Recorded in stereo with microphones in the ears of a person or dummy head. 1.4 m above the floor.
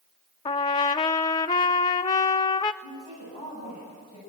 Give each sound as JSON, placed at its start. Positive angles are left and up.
{"t": 0.5, "sound": "a trumpet", "side_deg": 25, "distance_m": 0.6}
{"t": 2.8, "sound": "a woman speaking", "side_deg": 30, "distance_m": 10.0}